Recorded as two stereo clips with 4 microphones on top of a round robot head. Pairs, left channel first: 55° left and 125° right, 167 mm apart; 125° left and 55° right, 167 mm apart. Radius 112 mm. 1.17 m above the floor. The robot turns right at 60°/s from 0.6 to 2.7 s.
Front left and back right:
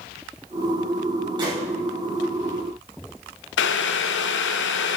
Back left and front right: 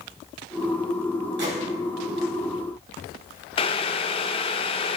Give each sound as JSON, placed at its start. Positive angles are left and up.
{"t": 1.4, "sound": "a gunshot", "azimuth_deg": -65, "distance_m": 5.5}
{"t": 3.6, "sound": "boiling", "azimuth_deg": 65, "distance_m": 0.5}